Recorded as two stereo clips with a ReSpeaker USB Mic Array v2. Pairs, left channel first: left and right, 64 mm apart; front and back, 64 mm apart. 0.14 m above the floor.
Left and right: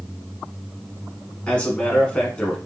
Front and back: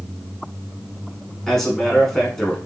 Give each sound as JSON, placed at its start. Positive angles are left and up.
{"t": 1.5, "sound": "a man speaking", "azimuth_deg": 75, "distance_m": 1.1}